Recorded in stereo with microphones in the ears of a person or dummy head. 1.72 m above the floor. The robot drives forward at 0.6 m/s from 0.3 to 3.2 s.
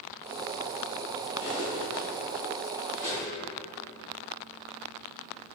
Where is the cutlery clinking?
10° right (ahead or behind), 1.5 m; by 3.3 s 5° right (ahead or behind), 2.5 m.